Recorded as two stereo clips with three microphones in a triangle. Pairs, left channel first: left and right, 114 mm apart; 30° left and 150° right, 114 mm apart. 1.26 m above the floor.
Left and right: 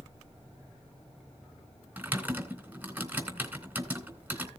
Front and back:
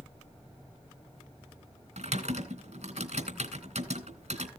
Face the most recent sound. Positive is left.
turn(degrees=-165)